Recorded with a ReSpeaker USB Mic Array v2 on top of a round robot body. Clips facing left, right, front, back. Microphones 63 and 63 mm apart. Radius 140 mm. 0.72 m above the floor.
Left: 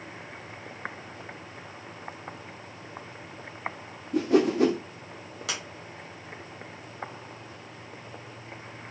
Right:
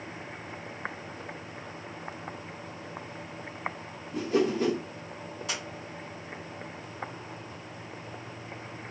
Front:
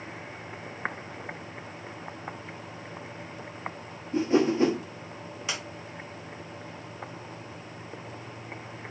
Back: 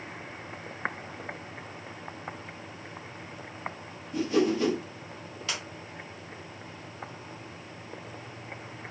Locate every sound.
4.1 s a whoosh: 65° left, 0.7 m
5.5 s a sliding door: 75° left, 0.7 m